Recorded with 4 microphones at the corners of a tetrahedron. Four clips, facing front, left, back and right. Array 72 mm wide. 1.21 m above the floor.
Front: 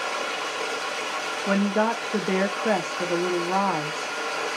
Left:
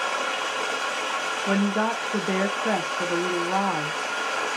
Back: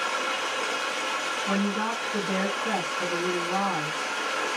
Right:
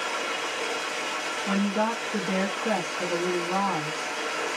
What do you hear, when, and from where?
0.0 s running water: 80° left, 1.5 m
1.5 s a woman speaking: 20° left, 0.7 m